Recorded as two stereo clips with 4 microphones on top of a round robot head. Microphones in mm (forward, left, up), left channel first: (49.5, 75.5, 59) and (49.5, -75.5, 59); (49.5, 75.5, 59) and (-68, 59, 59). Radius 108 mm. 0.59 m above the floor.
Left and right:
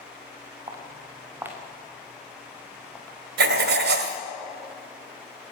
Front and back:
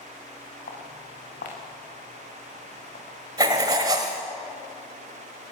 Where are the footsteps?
30° right, 3.5 m; by 3.2 s 10° left, 4.5 m.